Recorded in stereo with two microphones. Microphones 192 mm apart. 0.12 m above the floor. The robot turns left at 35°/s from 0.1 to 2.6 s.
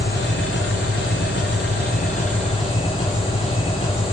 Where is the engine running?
120° left, 6 m; by 4.1 s 30° left, 6 m.